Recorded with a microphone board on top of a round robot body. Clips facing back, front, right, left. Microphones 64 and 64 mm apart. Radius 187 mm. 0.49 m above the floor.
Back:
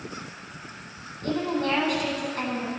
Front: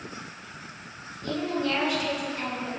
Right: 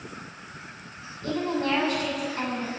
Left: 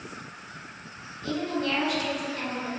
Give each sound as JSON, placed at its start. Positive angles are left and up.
{"t": 1.2, "sound": "a woman speaking", "azimuth_deg": -145, "distance_m": 5.0}